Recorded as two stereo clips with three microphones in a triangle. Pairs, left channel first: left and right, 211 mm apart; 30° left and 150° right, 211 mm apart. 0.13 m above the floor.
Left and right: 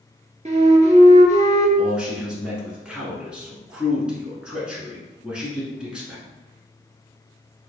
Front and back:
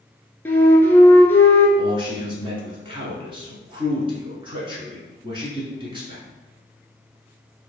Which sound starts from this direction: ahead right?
A flute, at 0.5 s.